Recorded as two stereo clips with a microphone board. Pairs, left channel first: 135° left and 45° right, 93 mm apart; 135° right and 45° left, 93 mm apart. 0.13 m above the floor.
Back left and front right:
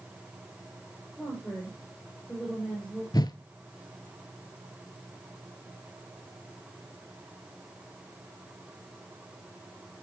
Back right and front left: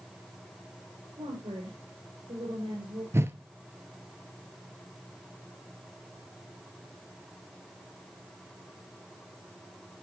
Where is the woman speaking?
45° left, 4 m.